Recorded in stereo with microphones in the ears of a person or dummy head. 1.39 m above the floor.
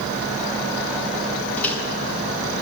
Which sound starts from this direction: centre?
A microwave, at 1.6 s.